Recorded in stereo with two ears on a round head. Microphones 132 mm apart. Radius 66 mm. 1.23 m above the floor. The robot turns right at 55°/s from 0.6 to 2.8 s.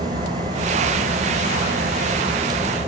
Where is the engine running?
135° right, 3 m; by 2.9 s 15° right, 3 m.